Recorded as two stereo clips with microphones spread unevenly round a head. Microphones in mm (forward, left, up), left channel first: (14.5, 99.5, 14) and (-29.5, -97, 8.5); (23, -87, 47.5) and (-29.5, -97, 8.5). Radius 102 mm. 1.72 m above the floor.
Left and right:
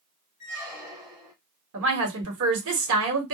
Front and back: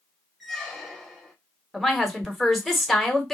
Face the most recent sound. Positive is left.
turn(degrees=-75)